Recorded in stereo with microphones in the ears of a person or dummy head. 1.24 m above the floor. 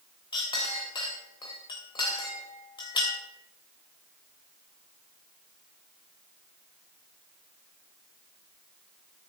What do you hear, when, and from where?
0.3 s a clink: 30° left (ahead or behind), 3.5 m